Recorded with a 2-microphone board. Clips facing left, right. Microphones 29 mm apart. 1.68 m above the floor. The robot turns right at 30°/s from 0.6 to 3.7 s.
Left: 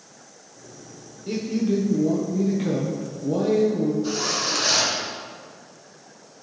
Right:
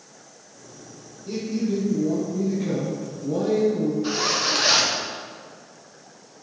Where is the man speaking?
85° left, 1.5 m; by 3.9 s 160° left, 1.5 m.